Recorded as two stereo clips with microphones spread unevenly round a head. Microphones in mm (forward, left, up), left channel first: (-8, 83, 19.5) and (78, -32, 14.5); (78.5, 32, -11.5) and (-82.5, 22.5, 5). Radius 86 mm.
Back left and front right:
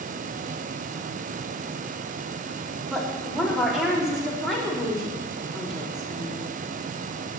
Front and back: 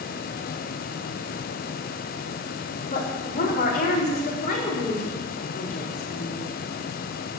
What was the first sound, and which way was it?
A woman speaking, 35° left.